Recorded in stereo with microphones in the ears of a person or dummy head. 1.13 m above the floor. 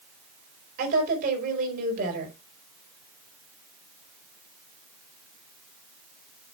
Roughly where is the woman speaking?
Right.